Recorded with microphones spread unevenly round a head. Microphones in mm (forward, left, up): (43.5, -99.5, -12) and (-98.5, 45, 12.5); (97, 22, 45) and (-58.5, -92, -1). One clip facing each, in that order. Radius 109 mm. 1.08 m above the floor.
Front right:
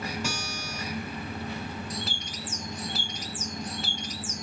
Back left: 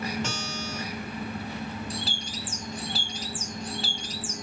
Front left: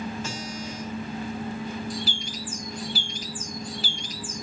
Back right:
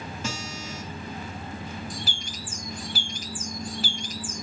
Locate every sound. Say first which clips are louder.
0.2 s a guitar: back left 1 dB, front left 1 dB; 130° right, 3.5 m
1.9 s a bird: back left 1 dB, front left 5 dB; 165° right, 1.2 m